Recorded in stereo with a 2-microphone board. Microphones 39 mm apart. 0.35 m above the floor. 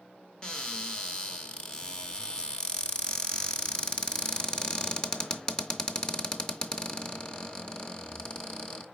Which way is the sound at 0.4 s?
20° left (ahead or behind).